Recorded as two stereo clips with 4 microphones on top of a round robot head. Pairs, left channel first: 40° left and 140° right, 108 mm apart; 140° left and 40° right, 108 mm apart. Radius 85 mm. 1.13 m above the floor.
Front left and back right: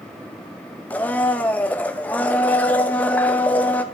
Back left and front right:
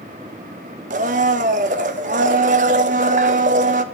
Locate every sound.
0.9 s a blender: 35° right, 0.5 m